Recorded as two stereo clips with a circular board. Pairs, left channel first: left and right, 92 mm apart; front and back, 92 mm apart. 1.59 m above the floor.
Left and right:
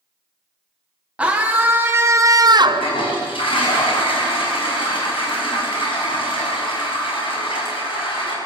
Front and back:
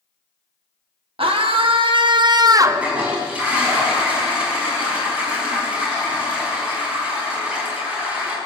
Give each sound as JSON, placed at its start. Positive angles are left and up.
{"t": 1.2, "sound": "a scream", "azimuth_deg": -165, "distance_m": 1.3}
{"t": 2.6, "sound": "a toilet flushing", "azimuth_deg": 105, "distance_m": 5.5}